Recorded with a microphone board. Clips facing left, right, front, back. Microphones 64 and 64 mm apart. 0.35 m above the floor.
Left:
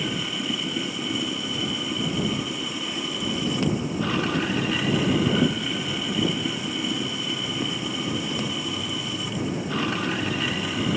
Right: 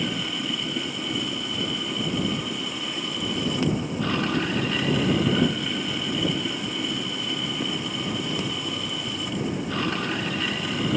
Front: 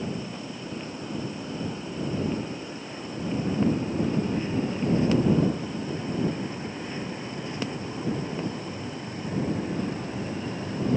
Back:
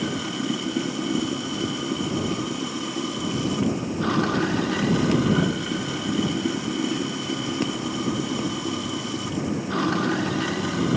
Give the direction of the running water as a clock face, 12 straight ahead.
6 o'clock.